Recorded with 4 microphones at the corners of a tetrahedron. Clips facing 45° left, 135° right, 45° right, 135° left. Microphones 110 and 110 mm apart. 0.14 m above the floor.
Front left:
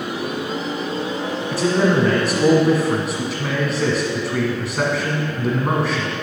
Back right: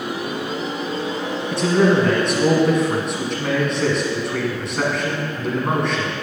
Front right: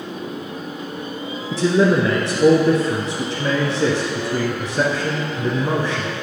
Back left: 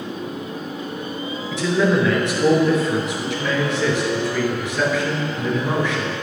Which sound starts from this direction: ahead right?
A man speaking, at 1.5 s.